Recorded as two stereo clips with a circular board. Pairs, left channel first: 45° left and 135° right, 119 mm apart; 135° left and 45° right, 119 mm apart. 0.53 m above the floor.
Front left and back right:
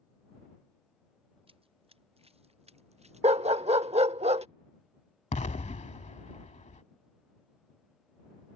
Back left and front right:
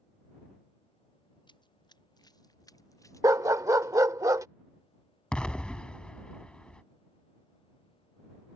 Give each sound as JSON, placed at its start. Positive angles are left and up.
{"t": 1.5, "sound": "running footsteps", "azimuth_deg": -175}
{"t": 3.2, "sound": "a dog barking", "azimuth_deg": -105}
{"t": 5.3, "sound": "an explosion", "azimuth_deg": 55}